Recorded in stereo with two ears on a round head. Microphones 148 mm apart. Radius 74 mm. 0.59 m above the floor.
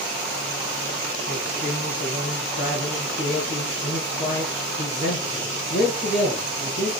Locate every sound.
1.3 s a man speaking: 55° left (ahead or behind), 8 m